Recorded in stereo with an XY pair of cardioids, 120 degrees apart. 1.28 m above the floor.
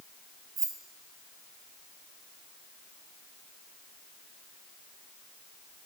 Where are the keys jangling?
65° right, 1.6 m.